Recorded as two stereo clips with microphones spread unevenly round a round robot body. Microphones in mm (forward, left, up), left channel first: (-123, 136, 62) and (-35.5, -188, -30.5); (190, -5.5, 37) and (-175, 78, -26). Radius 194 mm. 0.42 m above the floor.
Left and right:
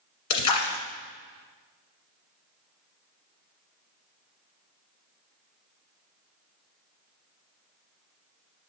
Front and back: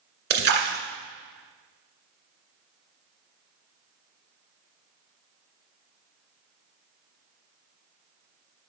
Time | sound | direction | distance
0.3 | a splash | 125° left | 1.6 m